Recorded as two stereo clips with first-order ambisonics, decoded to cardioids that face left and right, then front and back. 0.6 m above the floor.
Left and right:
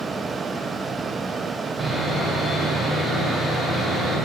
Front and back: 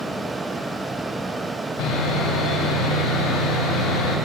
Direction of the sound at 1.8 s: 5° right.